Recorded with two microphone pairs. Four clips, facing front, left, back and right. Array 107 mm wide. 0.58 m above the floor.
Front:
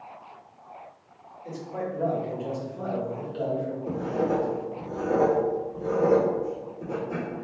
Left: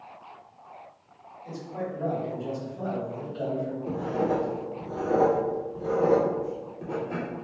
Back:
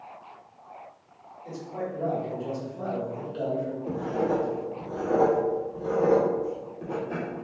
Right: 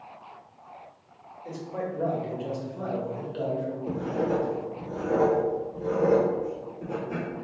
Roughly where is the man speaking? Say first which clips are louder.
Right 1 dB, front 1 dB; ahead right.